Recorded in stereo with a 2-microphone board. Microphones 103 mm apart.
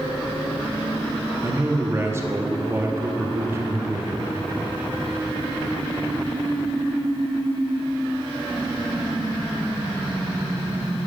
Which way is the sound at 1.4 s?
25° right (ahead or behind).